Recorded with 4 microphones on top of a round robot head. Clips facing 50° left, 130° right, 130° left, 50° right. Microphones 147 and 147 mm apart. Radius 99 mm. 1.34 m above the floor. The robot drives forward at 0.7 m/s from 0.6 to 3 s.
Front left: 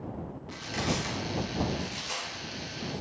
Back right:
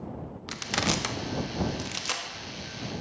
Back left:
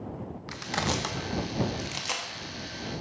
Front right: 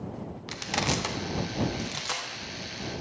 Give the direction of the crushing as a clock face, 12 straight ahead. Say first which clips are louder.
Back right 2 dB, front right 1 dB; 4 o'clock.